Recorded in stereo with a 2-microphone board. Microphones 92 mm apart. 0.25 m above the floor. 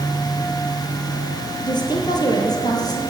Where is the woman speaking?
50° left (ahead or behind), 5 m; by 3.0 s 45° left (ahead or behind), 6.5 m.